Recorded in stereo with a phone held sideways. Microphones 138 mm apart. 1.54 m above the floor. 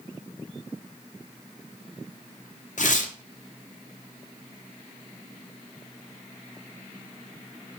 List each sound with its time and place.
2.8 s tearing paper: 65° left (ahead or behind), 0.6 m